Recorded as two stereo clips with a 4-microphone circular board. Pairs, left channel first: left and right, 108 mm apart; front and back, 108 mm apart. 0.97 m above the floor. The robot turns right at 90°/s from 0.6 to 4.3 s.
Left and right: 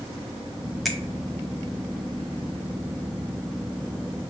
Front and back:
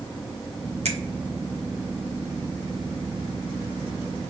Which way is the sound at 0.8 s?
Straight behind.